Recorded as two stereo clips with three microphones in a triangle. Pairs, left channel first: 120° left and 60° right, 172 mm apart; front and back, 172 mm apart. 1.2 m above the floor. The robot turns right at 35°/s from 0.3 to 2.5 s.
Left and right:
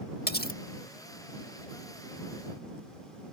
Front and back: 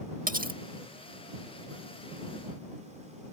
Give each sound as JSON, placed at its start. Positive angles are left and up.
{"t": 0.3, "sound": "cutlery clinking", "azimuth_deg": 140}